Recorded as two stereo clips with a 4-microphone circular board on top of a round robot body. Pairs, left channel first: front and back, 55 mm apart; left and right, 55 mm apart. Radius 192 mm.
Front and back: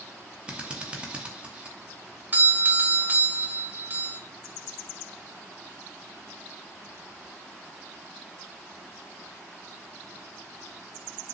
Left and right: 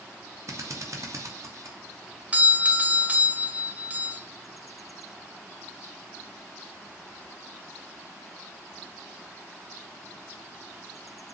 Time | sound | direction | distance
0.5 | a drill | 110° right | 2.5 m
2.3 | a doorbell | 145° right | 1.8 m